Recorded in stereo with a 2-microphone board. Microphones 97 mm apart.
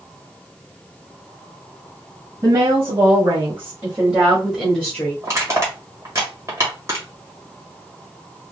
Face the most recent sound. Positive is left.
turn(degrees=-30)  # may be behind; listen again after turning